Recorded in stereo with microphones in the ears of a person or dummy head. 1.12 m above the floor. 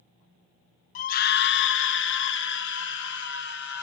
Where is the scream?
45° left (ahead or behind), 0.6 m; by 3.8 s 60° left (ahead or behind), 2 m.